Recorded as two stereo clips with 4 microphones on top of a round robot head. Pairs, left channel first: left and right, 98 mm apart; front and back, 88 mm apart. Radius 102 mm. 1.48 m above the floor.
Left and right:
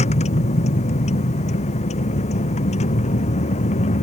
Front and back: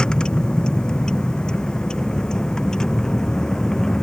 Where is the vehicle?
85° left.